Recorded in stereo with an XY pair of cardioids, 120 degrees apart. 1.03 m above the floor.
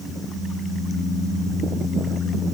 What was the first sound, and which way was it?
Only background noise.